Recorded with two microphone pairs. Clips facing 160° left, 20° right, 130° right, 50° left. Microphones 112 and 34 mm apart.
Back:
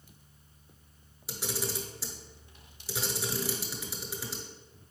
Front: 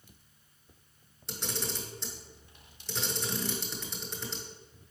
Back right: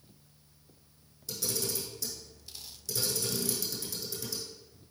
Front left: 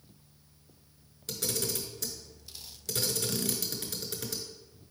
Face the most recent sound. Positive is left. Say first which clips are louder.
# back 2 dB, front left 1 dB
turn(degrees=75)